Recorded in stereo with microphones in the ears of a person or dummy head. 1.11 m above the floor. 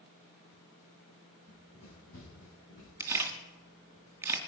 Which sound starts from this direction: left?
Running footsteps, at 1.5 s.